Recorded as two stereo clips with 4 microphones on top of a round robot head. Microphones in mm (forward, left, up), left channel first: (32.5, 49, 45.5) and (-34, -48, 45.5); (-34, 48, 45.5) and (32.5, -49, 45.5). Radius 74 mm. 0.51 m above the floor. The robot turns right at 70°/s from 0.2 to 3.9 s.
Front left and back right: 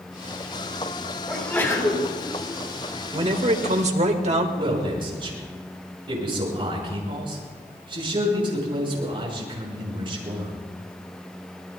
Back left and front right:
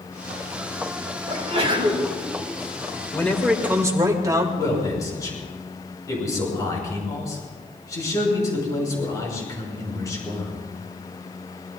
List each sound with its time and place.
1.3 s a sneeze: 40° right, 4.5 m; by 2.1 s 15° left, 4.5 m
3.1 s a man speaking: 170° right, 2 m; by 4.5 s 115° right, 2 m
4.6 s a man speaking: 175° right, 6.5 m